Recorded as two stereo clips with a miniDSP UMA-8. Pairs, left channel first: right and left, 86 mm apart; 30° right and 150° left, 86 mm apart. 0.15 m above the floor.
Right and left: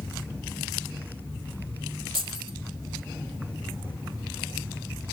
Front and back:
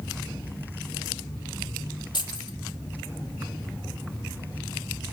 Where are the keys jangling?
Straight ahead, 3.5 m.